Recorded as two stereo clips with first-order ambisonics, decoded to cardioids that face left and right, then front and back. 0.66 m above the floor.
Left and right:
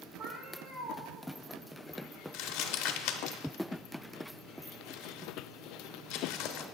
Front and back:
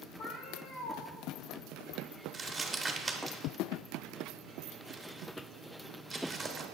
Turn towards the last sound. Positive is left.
turn(degrees=105)